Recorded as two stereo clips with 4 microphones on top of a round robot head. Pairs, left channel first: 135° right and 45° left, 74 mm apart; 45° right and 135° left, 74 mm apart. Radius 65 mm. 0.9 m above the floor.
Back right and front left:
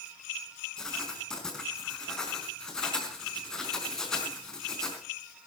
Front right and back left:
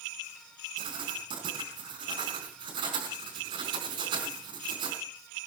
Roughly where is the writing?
Behind left.